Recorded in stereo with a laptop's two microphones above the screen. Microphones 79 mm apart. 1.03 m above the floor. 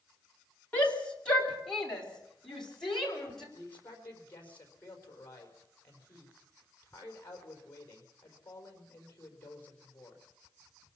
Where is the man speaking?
20° left (ahead or behind), 4.5 m.